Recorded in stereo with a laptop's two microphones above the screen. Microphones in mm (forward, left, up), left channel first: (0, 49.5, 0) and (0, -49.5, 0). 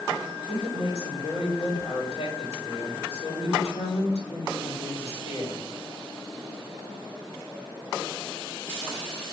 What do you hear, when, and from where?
0.5 s a woman speaking: 80° left, 3 m